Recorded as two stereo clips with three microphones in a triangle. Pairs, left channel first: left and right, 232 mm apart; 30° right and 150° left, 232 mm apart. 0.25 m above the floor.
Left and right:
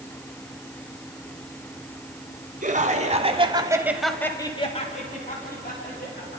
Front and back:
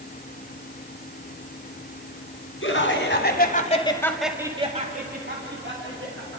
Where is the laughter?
40° right, 3 m; by 6.4 s 130° left, 4 m.